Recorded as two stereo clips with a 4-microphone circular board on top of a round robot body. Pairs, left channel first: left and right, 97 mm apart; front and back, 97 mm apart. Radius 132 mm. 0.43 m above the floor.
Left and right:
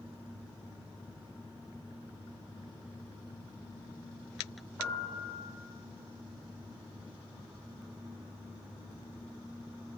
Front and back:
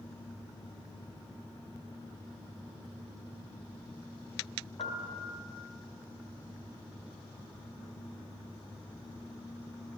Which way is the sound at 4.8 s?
10° left.